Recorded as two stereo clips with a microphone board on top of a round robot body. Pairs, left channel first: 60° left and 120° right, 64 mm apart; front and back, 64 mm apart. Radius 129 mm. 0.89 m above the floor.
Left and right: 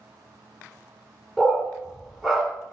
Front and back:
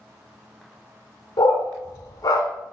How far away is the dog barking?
About 1.4 m.